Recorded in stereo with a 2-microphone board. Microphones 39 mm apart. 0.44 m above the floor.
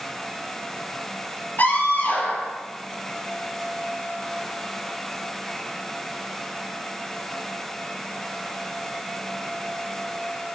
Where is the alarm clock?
No alarm clock in this recording.